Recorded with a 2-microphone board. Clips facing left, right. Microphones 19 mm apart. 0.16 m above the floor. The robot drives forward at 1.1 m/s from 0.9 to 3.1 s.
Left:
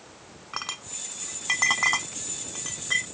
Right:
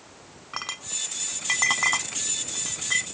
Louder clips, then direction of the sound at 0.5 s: Right 2 dB; centre (ahead or behind).